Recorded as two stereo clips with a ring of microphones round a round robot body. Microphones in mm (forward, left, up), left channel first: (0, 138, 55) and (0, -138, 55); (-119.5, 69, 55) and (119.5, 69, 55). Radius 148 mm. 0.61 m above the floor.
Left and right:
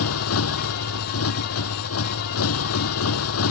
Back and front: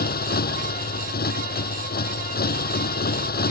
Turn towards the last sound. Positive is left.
turn(degrees=130)